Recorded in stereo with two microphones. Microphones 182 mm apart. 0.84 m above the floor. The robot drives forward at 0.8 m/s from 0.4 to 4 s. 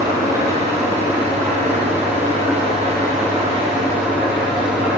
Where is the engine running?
15° right (ahead or behind), 4 m; by 5.0 s 10° right (ahead or behind), 7 m.